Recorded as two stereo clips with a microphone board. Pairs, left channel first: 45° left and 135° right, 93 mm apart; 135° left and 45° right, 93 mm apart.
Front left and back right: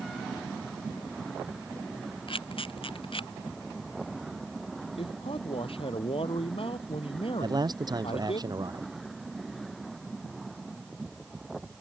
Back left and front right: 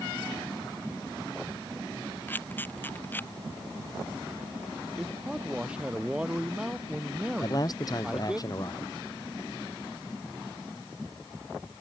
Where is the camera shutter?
65° left.